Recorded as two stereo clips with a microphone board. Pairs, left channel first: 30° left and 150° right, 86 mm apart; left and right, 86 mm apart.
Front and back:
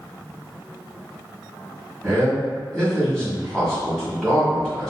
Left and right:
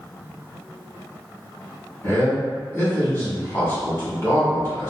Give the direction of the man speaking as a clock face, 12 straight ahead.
9 o'clock.